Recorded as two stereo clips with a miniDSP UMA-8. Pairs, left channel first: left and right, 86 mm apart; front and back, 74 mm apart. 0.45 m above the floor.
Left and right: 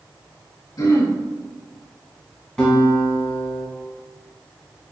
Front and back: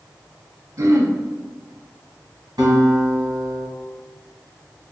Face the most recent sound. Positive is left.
turn(degrees=170)